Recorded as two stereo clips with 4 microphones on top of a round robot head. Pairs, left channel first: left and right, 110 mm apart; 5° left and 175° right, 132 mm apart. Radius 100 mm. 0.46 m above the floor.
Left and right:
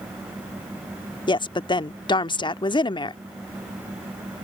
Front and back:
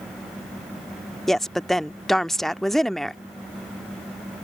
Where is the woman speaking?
90° left.